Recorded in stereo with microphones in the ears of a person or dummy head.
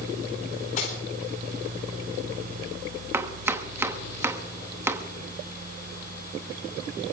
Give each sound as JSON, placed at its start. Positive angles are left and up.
{"t": 0.8, "sound": "cutlery clinking", "side_deg": 45, "distance_m": 4.0}
{"t": 3.1, "sound": "chopping", "side_deg": -10, "distance_m": 1.0}